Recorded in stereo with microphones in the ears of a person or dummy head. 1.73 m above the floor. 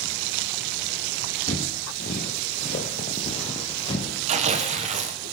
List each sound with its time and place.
1.5 s footsteps: 30° left (ahead or behind), 1.9 m; by 4.2 s 25° left (ahead or behind), 3 m
4.3 s tearing paper: 40° right (ahead or behind), 1.5 m